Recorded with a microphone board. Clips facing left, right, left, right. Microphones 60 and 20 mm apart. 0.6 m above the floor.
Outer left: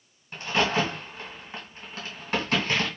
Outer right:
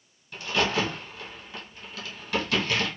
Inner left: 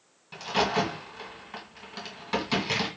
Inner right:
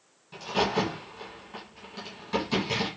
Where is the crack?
35° left (ahead or behind), 1.5 m.